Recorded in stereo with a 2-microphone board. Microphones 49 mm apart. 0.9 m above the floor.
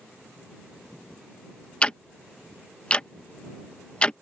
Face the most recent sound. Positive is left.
turn(degrees=20)  # may be behind; listen again after turning